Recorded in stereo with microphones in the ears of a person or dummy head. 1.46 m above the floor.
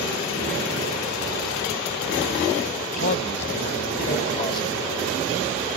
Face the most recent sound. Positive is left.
turn(degrees=25)  # may be behind; listen again after turning